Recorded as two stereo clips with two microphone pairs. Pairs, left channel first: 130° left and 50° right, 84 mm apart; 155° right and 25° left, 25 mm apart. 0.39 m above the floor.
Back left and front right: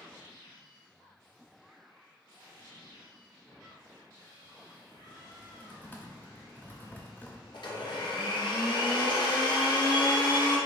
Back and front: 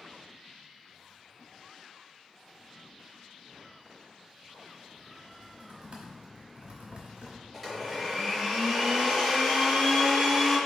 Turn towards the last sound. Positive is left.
turn(degrees=125)